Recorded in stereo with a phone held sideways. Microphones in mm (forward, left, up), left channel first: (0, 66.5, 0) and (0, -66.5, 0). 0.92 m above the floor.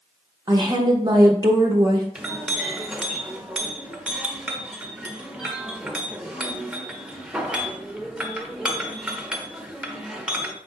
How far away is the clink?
About 0.8 m.